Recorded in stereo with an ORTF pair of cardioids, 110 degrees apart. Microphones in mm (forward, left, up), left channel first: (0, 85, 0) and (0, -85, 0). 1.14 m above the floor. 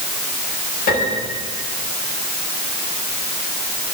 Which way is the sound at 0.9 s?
65° left.